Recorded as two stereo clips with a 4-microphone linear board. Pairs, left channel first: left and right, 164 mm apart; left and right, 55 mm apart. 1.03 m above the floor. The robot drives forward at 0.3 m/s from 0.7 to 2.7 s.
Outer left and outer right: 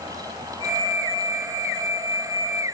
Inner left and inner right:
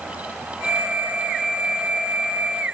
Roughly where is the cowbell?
I don't hear a cowbell.